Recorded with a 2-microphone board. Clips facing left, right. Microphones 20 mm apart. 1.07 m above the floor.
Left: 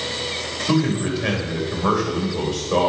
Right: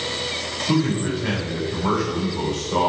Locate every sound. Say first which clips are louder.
0.7 s a man speaking: left 1 dB; 75° left (ahead or behind), 4.5 m